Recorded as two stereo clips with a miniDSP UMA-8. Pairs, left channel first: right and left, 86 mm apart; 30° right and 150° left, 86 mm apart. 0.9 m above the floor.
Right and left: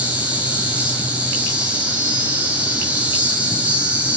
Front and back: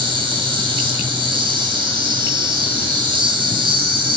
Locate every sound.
0.0 s an insect: 165° left, 4.5 m